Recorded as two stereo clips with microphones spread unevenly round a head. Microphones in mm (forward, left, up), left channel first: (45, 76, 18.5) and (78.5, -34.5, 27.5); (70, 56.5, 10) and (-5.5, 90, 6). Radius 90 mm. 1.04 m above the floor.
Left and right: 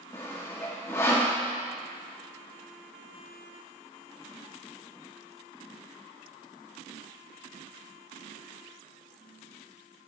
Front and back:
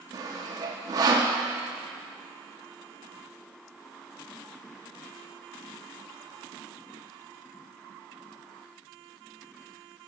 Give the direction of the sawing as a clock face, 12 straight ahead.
6 o'clock.